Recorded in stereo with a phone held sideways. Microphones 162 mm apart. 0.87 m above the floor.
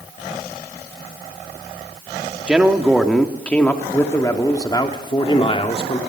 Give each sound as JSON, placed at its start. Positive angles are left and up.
{"t": 2.5, "sound": "a man speaking", "side_deg": -5, "distance_m": 2.0}